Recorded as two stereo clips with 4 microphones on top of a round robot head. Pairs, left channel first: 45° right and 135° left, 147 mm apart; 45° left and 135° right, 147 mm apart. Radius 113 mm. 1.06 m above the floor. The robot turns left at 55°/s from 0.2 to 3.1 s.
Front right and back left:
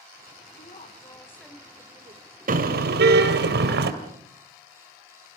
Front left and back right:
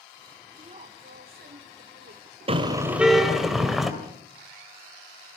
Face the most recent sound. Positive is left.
turn(degrees=135)